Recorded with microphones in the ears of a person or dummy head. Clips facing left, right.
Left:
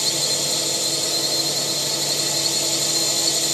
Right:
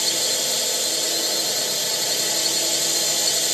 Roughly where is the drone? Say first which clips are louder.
Left 1 dB; centre.